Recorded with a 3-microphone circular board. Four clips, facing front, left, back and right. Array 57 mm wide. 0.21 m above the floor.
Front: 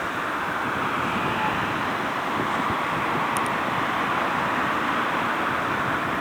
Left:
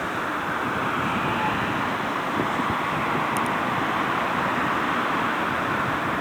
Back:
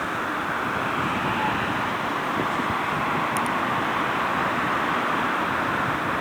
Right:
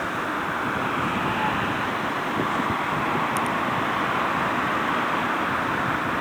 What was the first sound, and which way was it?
Only background noise.